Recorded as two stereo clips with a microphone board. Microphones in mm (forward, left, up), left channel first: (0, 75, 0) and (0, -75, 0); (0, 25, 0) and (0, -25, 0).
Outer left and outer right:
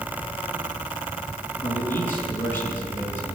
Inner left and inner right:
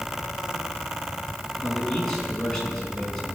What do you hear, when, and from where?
1.6 s a man speaking: 15° left (ahead or behind), 4.5 m